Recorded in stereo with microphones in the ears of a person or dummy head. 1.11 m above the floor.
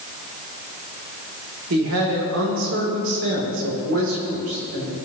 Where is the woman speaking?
75° right (ahead or behind), 3 m.